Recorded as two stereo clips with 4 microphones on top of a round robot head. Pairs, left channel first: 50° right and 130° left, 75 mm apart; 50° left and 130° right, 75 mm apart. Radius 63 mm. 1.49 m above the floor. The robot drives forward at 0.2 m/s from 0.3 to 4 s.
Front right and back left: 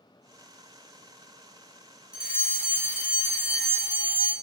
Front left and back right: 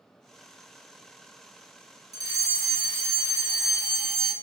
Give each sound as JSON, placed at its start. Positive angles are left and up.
{"t": 2.1, "sound": "a fire alarm", "azimuth_deg": -155, "distance_m": 1.1}